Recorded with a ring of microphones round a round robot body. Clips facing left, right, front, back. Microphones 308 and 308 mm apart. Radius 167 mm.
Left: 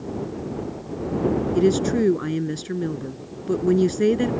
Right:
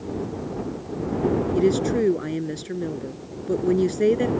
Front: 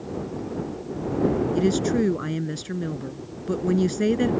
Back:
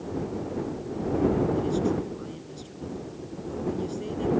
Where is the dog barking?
No dog barking in this recording.